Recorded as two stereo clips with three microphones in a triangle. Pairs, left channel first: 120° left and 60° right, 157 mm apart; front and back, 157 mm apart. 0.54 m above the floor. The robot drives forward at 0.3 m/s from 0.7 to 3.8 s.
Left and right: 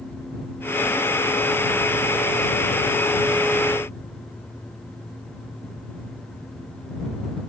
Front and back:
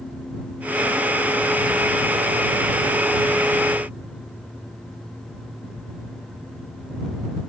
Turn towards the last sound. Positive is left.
No sound to turn to.